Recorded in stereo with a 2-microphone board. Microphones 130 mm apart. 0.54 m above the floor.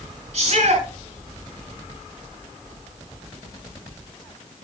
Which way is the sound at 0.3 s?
65° right (ahead or behind).